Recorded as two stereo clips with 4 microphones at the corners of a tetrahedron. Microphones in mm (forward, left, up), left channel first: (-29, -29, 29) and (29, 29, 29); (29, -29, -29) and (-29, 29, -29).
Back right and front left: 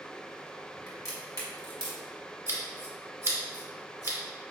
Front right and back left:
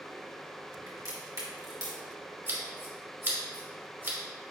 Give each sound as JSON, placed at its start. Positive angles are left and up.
{"t": 0.9, "sound": "a crack", "azimuth_deg": 175, "distance_m": 1.6}
{"t": 2.5, "sound": "scissors", "azimuth_deg": 85, "distance_m": 1.1}